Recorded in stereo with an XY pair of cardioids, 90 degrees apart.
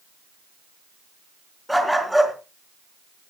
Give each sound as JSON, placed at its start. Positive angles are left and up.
{"t": 1.7, "sound": "a dog barking", "azimuth_deg": 0, "distance_m": 4.0}